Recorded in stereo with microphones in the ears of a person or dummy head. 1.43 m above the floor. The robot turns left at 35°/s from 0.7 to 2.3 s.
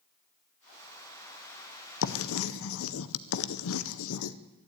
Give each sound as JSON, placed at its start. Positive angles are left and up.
{"t": 2.0, "sound": "writing", "side_deg": 65, "distance_m": 0.7}